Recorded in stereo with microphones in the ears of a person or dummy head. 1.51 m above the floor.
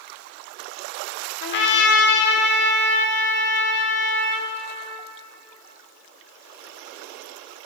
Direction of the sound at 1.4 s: 65° left (ahead or behind).